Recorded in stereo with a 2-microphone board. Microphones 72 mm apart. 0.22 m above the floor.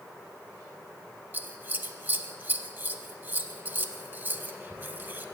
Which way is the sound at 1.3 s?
30° right (ahead or behind).